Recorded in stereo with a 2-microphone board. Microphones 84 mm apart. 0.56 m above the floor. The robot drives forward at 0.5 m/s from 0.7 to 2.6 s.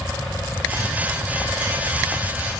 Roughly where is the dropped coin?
I don't hear a dropped coin.